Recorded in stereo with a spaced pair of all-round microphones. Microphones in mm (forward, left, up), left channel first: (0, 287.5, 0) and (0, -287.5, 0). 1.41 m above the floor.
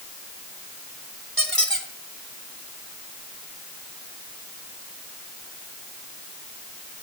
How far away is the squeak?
About 2.5 m.